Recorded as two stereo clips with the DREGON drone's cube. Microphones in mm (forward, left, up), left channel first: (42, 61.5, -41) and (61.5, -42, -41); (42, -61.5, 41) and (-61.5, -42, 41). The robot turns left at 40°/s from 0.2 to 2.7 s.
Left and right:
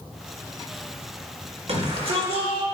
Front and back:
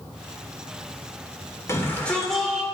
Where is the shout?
75° right, 3 m; by 2.6 s 110° right, 3 m.